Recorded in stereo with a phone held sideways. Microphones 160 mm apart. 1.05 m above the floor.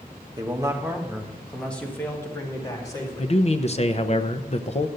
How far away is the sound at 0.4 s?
About 1.3 m.